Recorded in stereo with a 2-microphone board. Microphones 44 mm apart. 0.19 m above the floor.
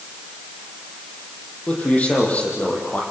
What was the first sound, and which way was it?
A man speaking, 35° left (ahead or behind).